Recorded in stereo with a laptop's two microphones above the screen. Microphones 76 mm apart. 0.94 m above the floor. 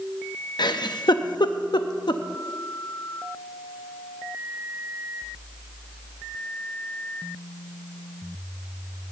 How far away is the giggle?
About 0.5 m.